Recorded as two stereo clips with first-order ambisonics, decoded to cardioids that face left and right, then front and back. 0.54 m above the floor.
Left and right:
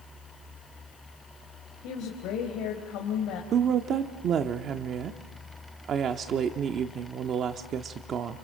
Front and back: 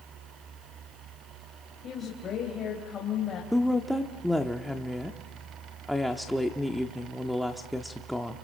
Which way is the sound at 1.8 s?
60° left.